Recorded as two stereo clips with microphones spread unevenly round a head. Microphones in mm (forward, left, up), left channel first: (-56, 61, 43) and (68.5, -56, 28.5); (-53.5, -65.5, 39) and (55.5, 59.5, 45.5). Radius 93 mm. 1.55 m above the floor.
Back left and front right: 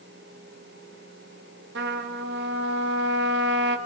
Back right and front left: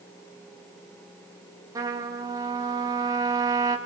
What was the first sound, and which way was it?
A trumpet, 20° right.